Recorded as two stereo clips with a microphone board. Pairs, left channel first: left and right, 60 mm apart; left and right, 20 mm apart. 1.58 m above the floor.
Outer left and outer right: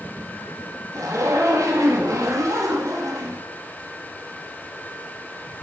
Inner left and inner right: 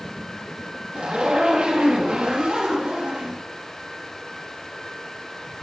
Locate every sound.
0.9 s a zipper: 70° right (ahead or behind), 2.5 m